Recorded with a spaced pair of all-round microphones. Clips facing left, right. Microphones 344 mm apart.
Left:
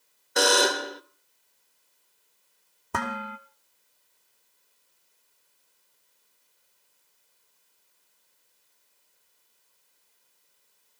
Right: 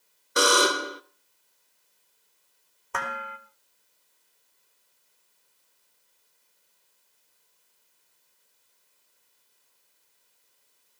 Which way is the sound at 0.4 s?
10° right (ahead or behind).